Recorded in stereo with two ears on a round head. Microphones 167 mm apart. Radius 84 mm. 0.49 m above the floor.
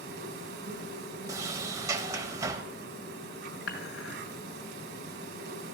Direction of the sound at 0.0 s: 55° right (ahead or behind).